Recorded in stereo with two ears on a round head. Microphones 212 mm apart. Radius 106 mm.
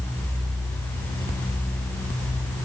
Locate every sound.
Only background noise.